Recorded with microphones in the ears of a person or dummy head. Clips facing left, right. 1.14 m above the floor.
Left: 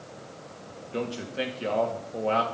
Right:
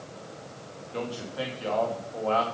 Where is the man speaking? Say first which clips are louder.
Left 2 dB; 25° left (ahead or behind), 2 m.